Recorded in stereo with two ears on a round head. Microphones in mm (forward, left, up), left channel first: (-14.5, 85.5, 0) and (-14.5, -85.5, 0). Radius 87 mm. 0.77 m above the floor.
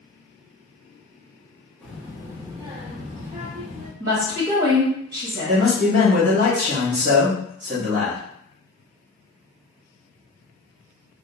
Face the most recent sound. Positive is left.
turn(degrees=-40)  # may be behind; listen again after turning